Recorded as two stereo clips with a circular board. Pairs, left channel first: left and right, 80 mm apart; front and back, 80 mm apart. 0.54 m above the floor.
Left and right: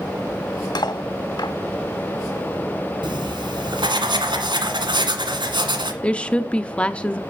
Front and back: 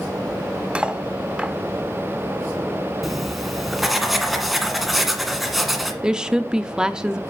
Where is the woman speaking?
125° left, 0.6 m.